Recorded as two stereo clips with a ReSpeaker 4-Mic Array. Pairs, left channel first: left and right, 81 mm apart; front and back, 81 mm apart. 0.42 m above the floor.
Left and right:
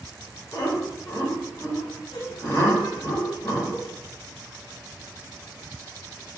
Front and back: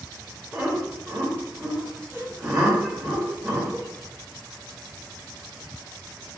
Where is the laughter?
110° left, 1.5 m.